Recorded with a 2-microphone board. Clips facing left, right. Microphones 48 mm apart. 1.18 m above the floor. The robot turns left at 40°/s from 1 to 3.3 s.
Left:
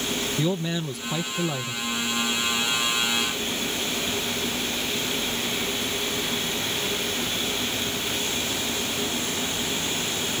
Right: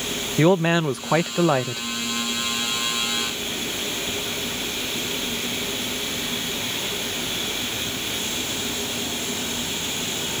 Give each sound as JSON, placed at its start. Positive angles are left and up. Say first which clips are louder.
{"t": 0.4, "sound": "a man speaking", "louder": "right 12 dB", "azimuth_deg": -65}